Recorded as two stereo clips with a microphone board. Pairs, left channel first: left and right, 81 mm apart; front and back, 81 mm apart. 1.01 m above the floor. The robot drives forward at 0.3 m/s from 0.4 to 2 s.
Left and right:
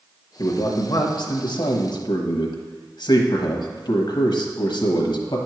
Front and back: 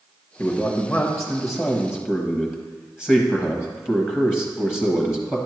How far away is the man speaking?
About 1.1 m.